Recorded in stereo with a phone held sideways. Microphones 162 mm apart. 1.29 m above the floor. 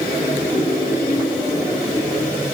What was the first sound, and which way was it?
Only background noise.